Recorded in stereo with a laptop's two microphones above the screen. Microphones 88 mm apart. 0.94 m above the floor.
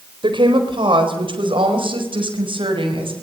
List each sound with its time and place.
0.2 s a woman speaking: 70° right (ahead or behind), 4 m; by 3.1 s 80° right, 5.5 m